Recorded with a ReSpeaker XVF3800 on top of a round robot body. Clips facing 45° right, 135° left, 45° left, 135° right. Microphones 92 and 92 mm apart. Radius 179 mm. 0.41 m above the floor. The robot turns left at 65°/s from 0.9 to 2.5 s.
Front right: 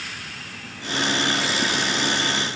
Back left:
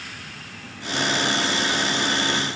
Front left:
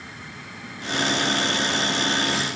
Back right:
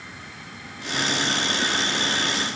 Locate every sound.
Only background noise.